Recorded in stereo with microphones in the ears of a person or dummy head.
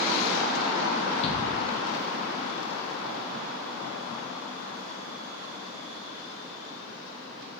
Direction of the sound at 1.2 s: 30° left (ahead or behind).